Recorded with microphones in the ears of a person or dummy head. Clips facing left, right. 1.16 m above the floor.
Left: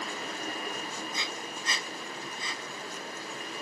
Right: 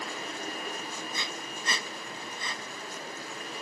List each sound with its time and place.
1.1 s breathing: 45° right (ahead or behind), 1.0 m